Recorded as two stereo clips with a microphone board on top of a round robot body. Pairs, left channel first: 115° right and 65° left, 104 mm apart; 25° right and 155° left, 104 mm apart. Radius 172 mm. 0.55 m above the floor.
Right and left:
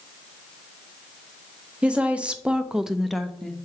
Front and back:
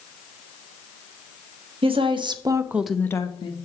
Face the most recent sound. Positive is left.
turn(degrees=-30)